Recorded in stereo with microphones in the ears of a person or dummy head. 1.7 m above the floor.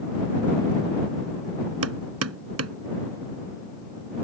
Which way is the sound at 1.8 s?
85° right.